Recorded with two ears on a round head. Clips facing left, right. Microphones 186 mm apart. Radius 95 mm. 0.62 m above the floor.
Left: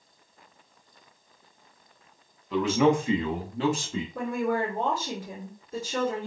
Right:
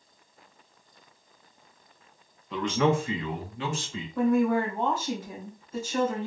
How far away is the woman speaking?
About 2 m.